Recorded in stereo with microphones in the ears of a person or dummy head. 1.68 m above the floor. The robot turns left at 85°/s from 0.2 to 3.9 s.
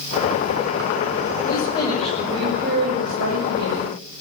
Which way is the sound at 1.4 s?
55° left.